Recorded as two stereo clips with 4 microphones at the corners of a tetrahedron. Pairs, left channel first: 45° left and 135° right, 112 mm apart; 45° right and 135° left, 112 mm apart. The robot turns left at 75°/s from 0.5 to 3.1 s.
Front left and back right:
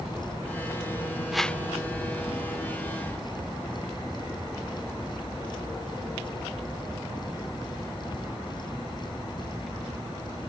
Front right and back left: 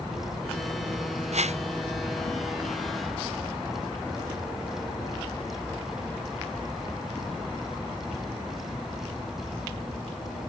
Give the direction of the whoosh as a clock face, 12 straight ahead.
7 o'clock.